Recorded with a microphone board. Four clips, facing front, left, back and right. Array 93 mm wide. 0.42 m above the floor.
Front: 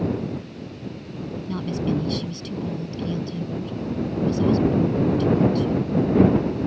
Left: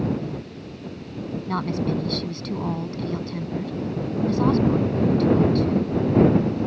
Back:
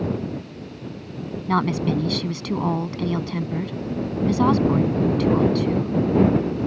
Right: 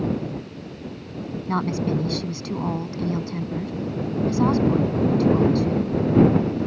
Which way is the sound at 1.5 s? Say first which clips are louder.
Right 2 dB, back 5 dB; 170° right.